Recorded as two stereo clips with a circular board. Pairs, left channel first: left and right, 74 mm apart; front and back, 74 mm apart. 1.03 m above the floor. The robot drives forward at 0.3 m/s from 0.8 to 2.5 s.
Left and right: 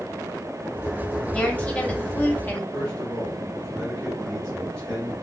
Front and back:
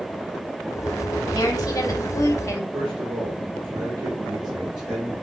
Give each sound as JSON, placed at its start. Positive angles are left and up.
{"t": 1.3, "sound": "a woman speaking", "azimuth_deg": 20, "distance_m": 1.0}
{"t": 2.7, "sound": "a man speaking", "azimuth_deg": 165, "distance_m": 1.7}